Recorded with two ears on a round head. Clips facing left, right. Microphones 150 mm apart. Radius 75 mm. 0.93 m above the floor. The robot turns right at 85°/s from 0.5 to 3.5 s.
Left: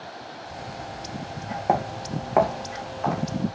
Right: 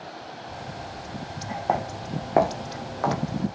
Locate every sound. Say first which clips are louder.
1.7 s footsteps: left 2 dB; 20° left (ahead or behind), 3.5 m; by 3.2 s 70° right (ahead or behind), 3 m